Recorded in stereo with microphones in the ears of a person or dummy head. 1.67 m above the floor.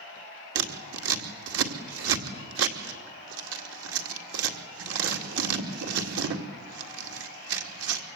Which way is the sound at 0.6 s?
65° right (ahead or behind).